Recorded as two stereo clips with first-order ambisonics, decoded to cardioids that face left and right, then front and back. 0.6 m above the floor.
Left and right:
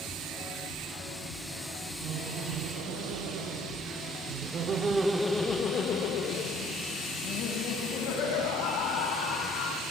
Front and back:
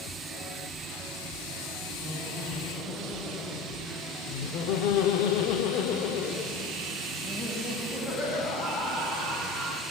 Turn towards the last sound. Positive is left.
turn(degrees=75)